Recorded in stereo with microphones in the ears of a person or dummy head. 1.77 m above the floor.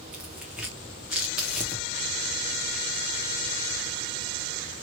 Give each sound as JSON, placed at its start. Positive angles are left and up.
{"t": 0.1, "sound": "tearing paper", "side_deg": 0, "distance_m": 1.1}